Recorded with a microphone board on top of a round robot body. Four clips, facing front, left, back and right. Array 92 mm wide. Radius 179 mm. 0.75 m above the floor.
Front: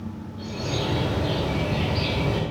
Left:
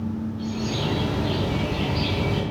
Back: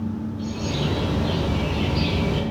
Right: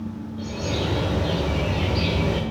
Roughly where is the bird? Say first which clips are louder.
Right 3 dB, front 1 dB; right.